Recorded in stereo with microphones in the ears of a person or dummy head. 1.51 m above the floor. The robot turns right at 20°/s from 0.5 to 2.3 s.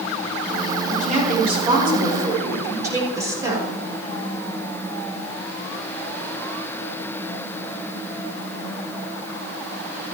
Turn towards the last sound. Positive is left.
turn(degrees=-20)  # may be behind; listen again after turning